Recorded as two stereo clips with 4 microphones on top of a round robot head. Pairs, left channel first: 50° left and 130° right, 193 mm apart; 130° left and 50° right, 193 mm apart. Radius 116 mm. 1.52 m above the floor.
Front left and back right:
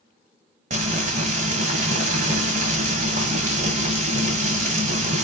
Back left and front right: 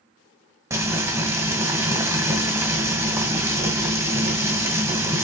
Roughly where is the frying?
Behind right.